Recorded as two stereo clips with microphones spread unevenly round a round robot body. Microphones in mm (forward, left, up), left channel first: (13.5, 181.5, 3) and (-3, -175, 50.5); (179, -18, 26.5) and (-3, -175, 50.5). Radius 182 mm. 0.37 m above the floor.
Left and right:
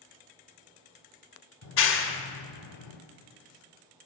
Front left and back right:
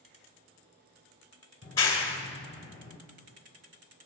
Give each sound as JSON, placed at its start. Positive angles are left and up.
{"t": 1.6, "sound": "a clap", "azimuth_deg": 110, "distance_m": 1.4}